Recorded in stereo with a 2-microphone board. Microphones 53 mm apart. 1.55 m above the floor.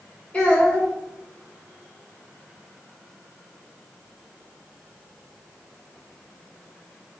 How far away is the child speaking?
About 1.8 m.